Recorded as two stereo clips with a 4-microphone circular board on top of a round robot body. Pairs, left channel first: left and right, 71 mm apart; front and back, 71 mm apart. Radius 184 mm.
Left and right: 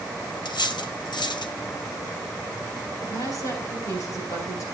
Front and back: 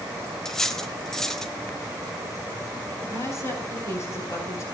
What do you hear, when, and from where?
0.5 s cutlery clinking: 85° left, 1.5 m
3.0 s a woman speaking: 50° left, 5.5 m